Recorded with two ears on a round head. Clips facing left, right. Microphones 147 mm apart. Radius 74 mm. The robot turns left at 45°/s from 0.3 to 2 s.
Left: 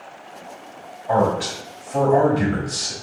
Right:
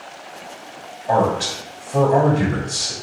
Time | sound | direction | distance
1.1 | a man speaking | 110° right | 1.3 m